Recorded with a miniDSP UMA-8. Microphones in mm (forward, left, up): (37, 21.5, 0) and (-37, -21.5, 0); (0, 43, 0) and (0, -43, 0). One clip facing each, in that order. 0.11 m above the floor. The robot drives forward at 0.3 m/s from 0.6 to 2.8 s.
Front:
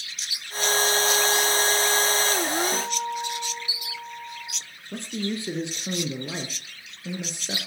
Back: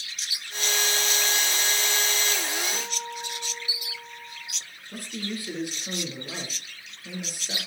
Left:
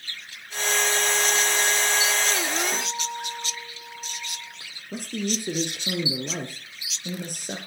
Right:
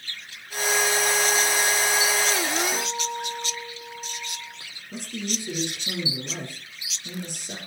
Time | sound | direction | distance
2.7 | a guitar | 25° left | 4 m
4.9 | a man speaking | 85° left | 2.5 m